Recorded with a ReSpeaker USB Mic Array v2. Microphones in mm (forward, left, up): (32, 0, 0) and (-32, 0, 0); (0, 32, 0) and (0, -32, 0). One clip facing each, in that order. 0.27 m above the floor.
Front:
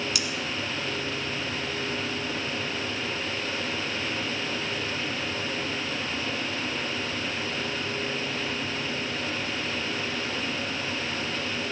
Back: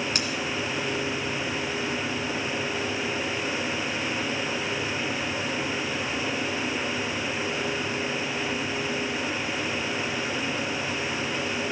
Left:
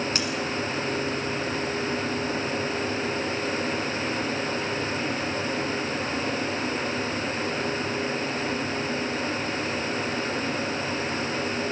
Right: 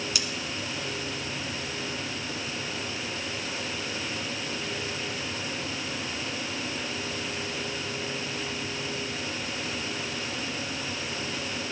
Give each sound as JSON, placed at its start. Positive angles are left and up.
{"t": 0.1, "sound": "scissors", "azimuth_deg": 135, "distance_m": 1.9}